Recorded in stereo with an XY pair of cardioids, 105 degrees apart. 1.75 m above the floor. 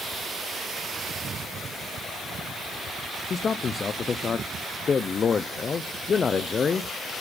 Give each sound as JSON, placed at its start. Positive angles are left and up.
{"t": 3.3, "sound": "a man speaking", "azimuth_deg": 35, "distance_m": 0.7}